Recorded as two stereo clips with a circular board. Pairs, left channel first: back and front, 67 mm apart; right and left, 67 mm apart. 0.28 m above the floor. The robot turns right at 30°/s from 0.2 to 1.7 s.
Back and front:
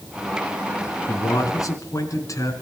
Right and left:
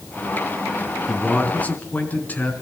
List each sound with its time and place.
1.1 s a man speaking: 170° right, 3.5 m; by 2.5 s 150° right, 3.5 m